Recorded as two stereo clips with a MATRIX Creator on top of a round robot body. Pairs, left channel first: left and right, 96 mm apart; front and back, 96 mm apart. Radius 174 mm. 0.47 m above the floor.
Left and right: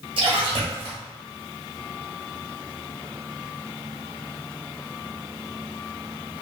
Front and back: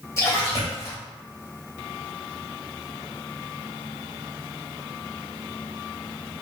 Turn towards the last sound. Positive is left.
turn(degrees=-60)